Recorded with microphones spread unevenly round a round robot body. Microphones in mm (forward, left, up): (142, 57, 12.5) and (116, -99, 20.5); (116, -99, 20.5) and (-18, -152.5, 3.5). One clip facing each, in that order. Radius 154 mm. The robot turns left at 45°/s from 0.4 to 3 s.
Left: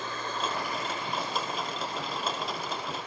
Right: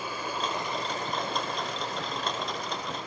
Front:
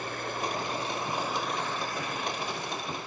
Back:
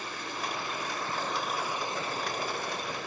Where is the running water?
20° right, 1.1 m; by 3.1 s 135° right, 1.1 m.